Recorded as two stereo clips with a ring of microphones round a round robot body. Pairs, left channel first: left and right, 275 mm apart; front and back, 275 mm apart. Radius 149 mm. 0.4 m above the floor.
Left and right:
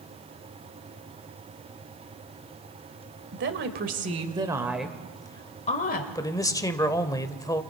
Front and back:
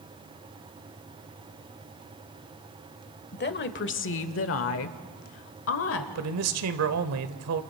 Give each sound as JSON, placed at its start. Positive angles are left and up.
{"t": 3.3, "sound": "a woman speaking", "azimuth_deg": -45, "distance_m": 1.5}
{"t": 6.2, "sound": "a man speaking", "azimuth_deg": 165, "distance_m": 1.2}